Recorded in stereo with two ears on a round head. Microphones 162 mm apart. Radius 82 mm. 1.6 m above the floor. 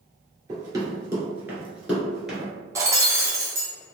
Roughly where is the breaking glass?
Centre.